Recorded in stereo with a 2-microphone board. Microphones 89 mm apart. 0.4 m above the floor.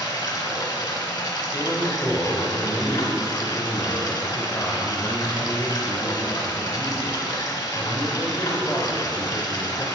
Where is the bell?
I don't hear a bell.